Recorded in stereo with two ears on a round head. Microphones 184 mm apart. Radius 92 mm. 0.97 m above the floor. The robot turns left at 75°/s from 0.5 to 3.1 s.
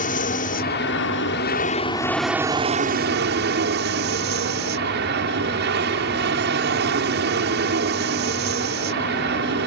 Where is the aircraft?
130° left; by 9.7 s 65° right.